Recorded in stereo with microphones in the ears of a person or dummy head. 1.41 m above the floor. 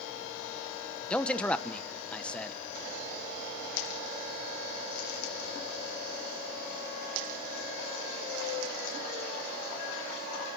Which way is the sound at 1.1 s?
5° left (ahead or behind).